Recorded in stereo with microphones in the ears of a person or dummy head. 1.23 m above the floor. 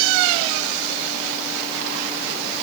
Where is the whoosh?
No whoosh in this recording.